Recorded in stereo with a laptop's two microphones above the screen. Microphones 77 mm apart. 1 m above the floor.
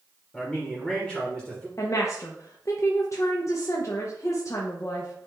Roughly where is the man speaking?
Centre.